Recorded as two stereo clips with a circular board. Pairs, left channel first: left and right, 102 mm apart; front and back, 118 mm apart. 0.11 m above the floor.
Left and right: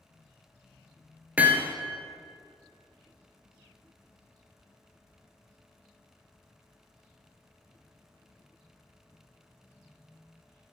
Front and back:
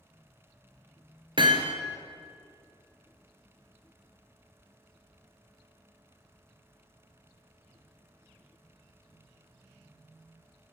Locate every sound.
1.4 s hammering: 160° right, 1.4 m